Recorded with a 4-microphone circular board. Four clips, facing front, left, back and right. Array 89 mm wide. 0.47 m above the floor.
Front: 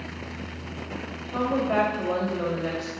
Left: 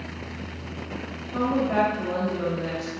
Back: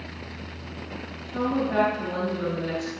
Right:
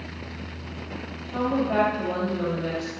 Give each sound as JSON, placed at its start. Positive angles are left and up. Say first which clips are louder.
{"t": 1.3, "sound": "a woman speaking", "louder": "even, front 1 dB", "azimuth_deg": 5, "distance_m": 3.0}